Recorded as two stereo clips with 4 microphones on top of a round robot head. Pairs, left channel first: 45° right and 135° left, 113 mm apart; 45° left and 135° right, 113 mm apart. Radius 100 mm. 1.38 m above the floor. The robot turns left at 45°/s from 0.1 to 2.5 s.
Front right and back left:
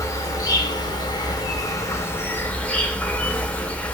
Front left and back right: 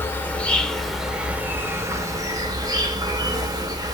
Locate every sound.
0.0 s an insect: 10° right, 0.8 m; by 3.9 s 115° right, 0.8 m